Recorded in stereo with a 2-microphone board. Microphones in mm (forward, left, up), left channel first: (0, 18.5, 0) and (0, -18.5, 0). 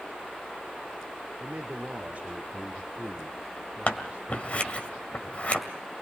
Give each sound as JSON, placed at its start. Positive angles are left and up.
{"t": 1.4, "sound": "a man speaking", "side_deg": -40, "distance_m": 1.5}
{"t": 3.9, "sound": "scissors", "side_deg": 40, "distance_m": 2.0}